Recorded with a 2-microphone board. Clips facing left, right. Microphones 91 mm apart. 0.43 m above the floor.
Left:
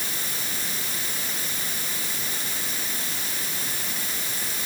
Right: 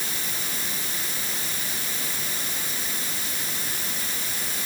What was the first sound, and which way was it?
Only background noise.